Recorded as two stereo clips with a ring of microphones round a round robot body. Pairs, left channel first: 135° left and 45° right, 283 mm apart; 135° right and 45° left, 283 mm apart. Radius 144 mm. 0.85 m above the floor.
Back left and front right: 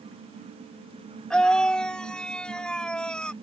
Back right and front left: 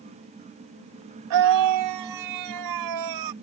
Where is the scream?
50° left.